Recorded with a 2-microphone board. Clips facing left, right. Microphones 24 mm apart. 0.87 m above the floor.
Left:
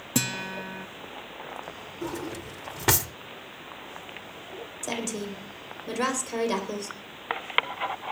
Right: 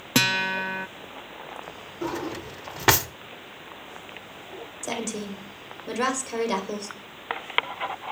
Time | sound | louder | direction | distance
0.1 | a guitar | right 8 dB | 45° right (ahead or behind) | 0.5 m
2.0 | a drawer | right 4 dB | 30° right (ahead or behind) | 0.7 m
4.8 | a woman speaking | right 1 dB | 5° right (ahead or behind) | 4 m